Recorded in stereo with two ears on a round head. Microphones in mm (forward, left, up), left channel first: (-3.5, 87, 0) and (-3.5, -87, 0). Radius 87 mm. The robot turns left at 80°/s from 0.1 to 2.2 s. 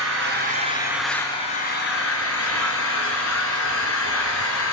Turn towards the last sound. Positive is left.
turn(degrees=90)